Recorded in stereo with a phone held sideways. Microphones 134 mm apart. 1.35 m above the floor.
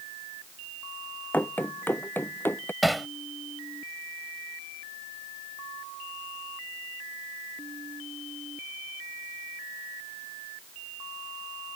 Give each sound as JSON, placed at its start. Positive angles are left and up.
{"t": 1.3, "sound": "running footsteps", "side_deg": 15}
{"t": 2.8, "sound": "hammering", "side_deg": 0}